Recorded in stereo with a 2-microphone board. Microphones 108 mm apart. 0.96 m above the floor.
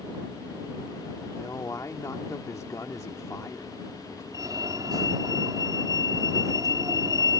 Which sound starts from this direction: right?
A fire alarm, at 4.3 s.